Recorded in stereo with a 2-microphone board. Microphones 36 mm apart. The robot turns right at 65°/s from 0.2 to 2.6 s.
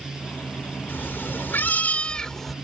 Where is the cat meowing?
70° left; by 2.5 s straight behind.